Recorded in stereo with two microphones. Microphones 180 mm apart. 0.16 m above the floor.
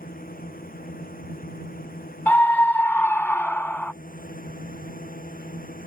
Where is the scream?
10° left (ahead or behind).